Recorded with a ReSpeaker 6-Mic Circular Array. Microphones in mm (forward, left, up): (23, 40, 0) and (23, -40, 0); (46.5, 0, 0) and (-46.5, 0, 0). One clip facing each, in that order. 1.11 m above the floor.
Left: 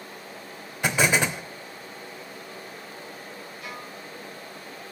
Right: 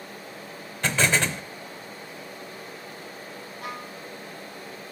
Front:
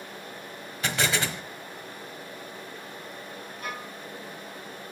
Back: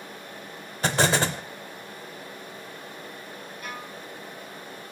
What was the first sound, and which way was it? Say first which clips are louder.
An explosion: left 1 dB, back 5 dB; 160° left.